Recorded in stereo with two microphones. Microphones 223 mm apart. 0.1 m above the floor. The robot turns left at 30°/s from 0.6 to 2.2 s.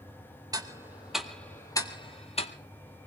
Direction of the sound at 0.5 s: 15° right (ahead or behind).